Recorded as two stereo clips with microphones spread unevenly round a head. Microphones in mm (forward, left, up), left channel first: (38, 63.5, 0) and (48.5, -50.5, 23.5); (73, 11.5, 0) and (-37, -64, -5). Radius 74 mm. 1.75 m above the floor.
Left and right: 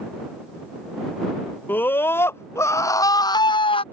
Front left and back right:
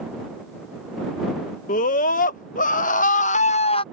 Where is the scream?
20° left; by 3.8 s 60° left.